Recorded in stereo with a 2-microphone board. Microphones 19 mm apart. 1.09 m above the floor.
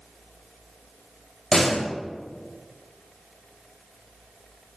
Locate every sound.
1.5 s a door slam: 30° left (ahead or behind), 2 m